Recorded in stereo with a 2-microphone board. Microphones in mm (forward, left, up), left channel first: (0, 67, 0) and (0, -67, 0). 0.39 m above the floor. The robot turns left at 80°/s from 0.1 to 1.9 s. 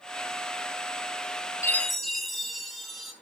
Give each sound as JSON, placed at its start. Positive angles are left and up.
{"t": 1.6, "sound": "a chime", "side_deg": 20, "distance_m": 1.5}